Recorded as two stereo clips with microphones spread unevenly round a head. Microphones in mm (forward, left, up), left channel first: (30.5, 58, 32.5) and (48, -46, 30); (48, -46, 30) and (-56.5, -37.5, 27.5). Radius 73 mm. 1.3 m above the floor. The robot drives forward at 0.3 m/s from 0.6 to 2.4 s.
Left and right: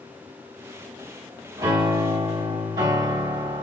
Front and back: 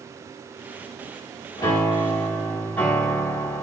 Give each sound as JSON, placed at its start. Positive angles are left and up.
{"t": 1.6, "sound": "a piano", "azimuth_deg": -40, "distance_m": 1.0}